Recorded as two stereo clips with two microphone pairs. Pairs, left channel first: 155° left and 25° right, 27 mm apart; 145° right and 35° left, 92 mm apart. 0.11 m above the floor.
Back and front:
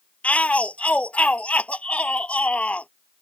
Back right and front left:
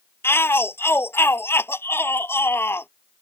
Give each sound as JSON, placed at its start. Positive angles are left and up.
{"t": 0.2, "sound": "a shout", "azimuth_deg": 160}